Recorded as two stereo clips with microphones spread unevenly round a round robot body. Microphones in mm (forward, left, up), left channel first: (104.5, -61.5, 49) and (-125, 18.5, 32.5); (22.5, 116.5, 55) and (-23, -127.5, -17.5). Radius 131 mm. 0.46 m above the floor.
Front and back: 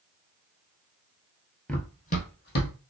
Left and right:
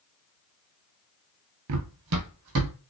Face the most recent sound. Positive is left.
turn(degrees=-60)